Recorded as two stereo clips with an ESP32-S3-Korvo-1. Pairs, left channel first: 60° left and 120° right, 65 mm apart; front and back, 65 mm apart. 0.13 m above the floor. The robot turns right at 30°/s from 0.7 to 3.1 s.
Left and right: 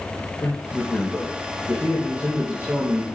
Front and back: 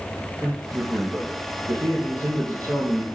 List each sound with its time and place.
0.4 s a man speaking: 125° left, 4 m; by 3.0 s 165° right, 4 m